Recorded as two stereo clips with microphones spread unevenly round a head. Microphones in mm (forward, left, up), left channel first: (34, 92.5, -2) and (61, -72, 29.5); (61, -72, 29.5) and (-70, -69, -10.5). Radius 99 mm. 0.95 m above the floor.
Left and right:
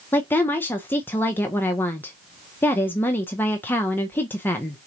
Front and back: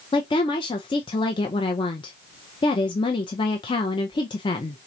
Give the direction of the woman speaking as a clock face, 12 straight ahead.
10 o'clock.